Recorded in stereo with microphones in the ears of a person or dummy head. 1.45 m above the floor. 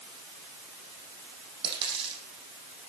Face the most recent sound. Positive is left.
turn(degrees=-25)  # may be behind; listen again after turning